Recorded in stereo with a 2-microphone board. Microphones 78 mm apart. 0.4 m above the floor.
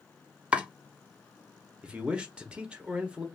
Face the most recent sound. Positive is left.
turn(degrees=-15)  # may be behind; listen again after turning